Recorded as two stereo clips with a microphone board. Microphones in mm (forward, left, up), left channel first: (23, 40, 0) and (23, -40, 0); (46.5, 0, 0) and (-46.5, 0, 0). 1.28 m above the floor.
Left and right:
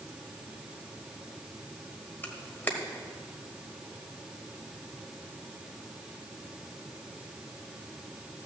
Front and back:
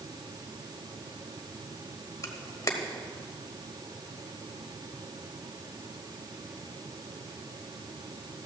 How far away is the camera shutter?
About 1.3 m.